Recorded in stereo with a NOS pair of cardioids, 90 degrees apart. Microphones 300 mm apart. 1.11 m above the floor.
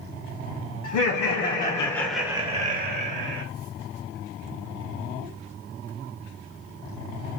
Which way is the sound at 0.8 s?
65° left.